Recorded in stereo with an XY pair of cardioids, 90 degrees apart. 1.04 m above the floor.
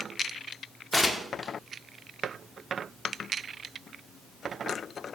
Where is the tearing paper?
15° left, 1.3 m.